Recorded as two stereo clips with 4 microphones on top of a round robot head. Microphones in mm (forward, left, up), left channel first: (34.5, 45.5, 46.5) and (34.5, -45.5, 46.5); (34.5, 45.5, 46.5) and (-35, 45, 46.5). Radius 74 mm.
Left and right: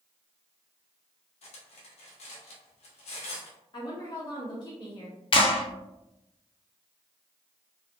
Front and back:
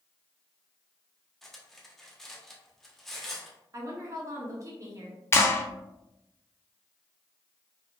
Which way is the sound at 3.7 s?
140° left.